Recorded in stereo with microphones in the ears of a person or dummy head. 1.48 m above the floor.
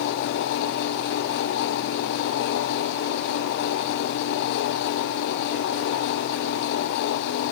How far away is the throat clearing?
No throat clearing in this recording.